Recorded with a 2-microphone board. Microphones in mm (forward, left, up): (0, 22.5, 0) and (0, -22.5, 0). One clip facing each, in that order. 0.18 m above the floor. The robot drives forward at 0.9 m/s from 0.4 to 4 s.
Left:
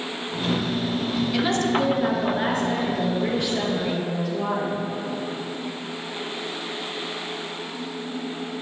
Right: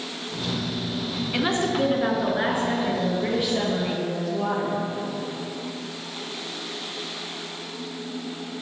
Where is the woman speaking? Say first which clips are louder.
Even; 25° right (ahead or behind), 1.5 m; by 4.7 s 10° right (ahead or behind), 3.5 m.